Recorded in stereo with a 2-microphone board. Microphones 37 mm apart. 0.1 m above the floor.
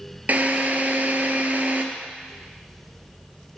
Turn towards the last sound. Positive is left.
turn(degrees=-45)  # may be behind; listen again after turning